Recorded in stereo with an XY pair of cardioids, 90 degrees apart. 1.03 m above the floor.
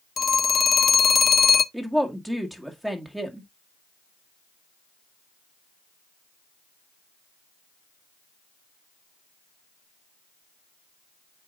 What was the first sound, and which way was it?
A phone ringing, 45° left.